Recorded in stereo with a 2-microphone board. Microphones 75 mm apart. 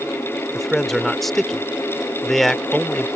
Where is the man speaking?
5° left (ahead or behind).